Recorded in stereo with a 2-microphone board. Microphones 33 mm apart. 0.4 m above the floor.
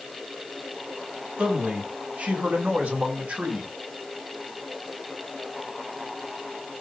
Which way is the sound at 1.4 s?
55° right (ahead or behind).